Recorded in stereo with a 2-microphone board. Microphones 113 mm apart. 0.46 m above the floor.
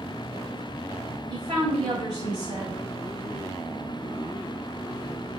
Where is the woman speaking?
40° right (ahead or behind), 2.5 m.